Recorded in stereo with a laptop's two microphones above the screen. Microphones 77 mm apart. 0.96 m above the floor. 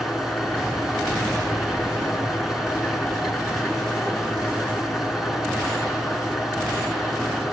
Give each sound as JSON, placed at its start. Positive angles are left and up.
{"t": 0.0, "sound": "an engine running", "side_deg": -5, "distance_m": 5.0}